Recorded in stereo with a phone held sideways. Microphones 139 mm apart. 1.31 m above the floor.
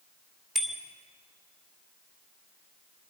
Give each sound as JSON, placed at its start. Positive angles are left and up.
{"t": 0.6, "sound": "a bicycle bell", "side_deg": 0, "distance_m": 2.5}